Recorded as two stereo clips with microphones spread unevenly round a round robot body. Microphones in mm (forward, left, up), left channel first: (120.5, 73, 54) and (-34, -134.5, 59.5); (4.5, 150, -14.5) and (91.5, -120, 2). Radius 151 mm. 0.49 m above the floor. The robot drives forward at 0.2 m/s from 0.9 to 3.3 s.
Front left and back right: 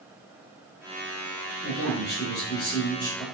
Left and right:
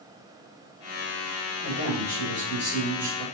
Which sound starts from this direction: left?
A man speaking, at 1.6 s.